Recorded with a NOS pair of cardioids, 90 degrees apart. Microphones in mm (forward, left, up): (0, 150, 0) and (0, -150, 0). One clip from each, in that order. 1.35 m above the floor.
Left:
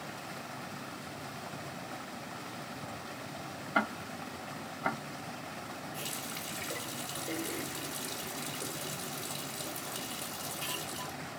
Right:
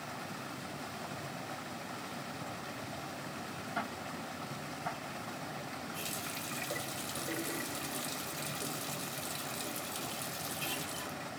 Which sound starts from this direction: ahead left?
Ticking, at 3.8 s.